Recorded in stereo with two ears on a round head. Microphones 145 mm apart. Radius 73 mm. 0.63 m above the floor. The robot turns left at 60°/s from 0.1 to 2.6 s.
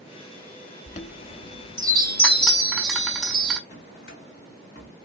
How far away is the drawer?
About 1.7 m.